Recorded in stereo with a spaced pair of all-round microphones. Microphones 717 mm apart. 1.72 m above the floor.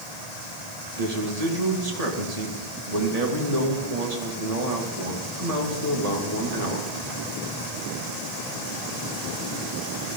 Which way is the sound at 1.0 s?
55° right (ahead or behind).